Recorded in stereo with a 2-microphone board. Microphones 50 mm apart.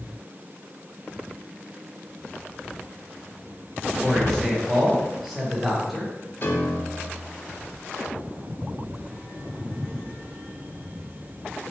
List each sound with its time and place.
4.0 s a man speaking: 5° right (ahead or behind), 1.2 m
6.4 s a piano: 50° left (ahead or behind), 0.7 m